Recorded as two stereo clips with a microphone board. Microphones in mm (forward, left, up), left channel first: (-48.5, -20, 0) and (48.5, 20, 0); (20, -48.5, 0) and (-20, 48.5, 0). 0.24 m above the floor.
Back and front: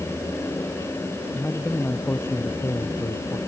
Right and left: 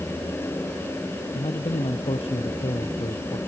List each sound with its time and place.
1.3 s a man speaking: 85° right; by 3.4 s 100° right